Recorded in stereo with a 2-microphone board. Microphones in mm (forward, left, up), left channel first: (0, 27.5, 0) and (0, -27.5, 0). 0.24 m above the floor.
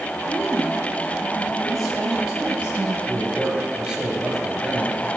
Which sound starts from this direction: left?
A woman speaking, at 0.2 s.